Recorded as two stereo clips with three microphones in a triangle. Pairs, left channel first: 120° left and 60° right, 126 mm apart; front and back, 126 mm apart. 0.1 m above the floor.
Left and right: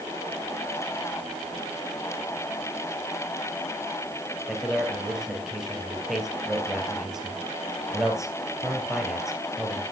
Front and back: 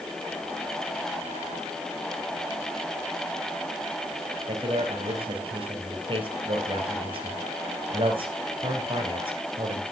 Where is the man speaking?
145° right, 2.5 m.